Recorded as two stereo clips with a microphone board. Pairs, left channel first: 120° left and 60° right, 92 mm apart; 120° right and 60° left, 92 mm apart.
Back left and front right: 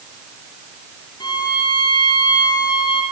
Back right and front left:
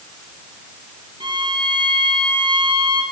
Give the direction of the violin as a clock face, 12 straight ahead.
9 o'clock.